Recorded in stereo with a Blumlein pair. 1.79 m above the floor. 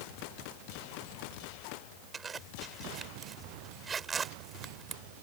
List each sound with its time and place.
2.1 s a zipper: 20° right